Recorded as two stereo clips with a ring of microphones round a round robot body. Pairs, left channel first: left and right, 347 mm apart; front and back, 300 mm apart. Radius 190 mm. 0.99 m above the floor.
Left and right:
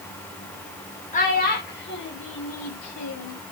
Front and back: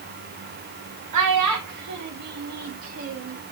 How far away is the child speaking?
About 2.5 m.